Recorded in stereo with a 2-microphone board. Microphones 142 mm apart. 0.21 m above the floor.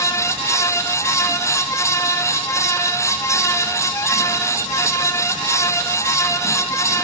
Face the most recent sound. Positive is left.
No sound to turn to.